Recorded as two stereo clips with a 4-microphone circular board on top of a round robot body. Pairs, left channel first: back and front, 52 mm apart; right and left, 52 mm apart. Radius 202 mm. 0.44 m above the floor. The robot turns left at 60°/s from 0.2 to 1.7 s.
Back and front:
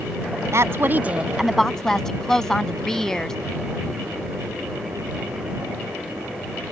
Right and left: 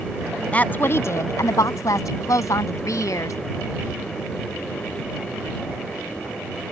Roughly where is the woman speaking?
Ahead right.